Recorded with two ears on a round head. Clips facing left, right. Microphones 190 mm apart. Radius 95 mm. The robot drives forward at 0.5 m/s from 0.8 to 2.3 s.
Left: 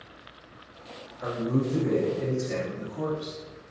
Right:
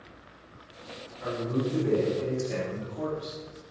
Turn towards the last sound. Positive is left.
turn(degrees=40)  # may be behind; listen again after turning